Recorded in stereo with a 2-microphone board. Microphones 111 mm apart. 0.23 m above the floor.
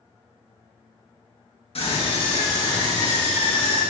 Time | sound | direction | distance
1.8 | a scream | 60° left (ahead or behind) | 3 m